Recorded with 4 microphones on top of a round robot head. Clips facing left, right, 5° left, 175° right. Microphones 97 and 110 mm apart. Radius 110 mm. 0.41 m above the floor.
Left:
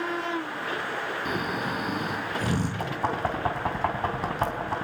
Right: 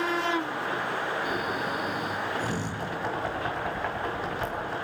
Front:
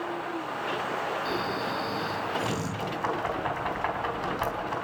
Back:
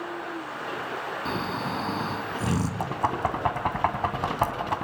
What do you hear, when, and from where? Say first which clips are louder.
1.2 s snoring: even, even; 140° left, 3.5 m
2.8 s knocking: left 3 dB, back 1 dB; 145° left, 3.5 m